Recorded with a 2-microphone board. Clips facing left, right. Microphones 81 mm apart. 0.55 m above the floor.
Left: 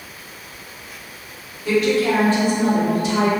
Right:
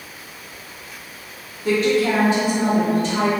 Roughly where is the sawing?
I don't hear sawing.